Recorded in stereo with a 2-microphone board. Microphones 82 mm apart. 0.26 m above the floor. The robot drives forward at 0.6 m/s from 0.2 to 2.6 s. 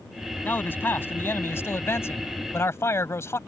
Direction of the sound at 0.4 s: 25° left (ahead or behind).